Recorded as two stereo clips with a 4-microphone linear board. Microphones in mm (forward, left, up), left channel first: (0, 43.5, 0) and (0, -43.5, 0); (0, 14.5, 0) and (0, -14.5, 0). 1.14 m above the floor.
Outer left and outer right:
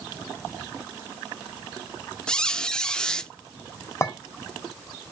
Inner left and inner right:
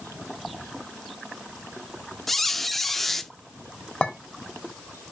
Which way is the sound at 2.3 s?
10° left (ahead or behind).